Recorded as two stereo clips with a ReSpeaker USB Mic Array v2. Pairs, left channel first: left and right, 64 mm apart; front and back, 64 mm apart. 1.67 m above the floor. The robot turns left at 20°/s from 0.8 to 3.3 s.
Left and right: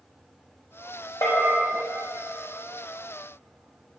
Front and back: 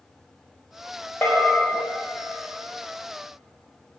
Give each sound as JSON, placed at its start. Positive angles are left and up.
{"t": 1.2, "sound": "a bell", "azimuth_deg": 65, "distance_m": 4.0}